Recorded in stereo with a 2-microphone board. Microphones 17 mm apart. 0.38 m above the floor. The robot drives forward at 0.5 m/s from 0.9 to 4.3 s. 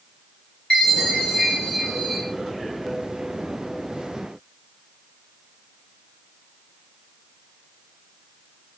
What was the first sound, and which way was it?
A chime, 55° left (ahead or behind).